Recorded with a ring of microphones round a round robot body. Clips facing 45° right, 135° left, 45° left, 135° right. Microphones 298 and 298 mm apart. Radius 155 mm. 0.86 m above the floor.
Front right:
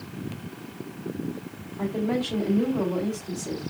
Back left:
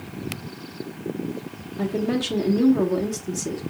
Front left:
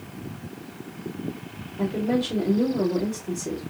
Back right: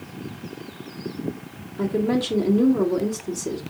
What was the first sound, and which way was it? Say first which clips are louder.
A woman speaking: back left 2 dB, back right 2 dB; 160° left.